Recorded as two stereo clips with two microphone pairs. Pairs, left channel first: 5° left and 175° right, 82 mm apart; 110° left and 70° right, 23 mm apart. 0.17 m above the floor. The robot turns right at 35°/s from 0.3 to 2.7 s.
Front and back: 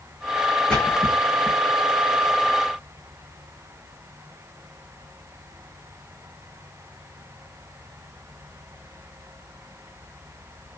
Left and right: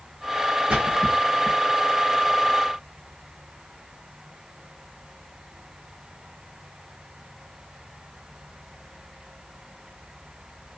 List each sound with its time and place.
0.7 s a splash: 75° right, 2.5 m; by 1.6 s 40° right, 2.5 m